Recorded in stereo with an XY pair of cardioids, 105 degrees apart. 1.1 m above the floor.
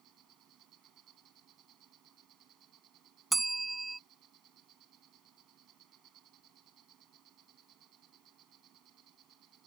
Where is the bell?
20° right.